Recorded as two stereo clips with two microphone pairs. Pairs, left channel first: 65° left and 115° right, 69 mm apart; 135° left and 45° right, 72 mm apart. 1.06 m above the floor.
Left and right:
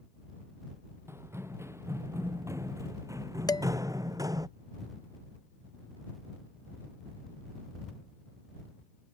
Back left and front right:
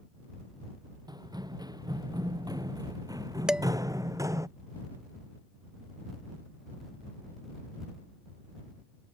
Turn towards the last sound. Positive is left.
turn(degrees=35)